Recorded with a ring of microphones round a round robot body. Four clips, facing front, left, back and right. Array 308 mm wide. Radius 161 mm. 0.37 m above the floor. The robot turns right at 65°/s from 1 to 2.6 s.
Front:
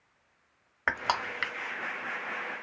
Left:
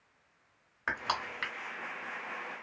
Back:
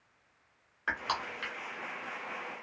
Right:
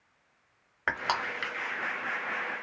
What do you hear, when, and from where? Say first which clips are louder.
0.9 s crushing: right 4 dB, front 5 dB; 30° right, 0.7 m; by 1.5 s 5° left, 0.7 m